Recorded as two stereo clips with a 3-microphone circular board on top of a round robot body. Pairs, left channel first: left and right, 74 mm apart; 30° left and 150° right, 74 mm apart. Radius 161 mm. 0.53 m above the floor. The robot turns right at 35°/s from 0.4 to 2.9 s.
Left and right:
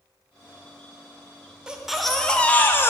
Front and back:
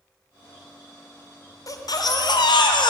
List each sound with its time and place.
1.7 s a baby crying: 10° right, 1.2 m; by 2.9 s 35° left, 1.2 m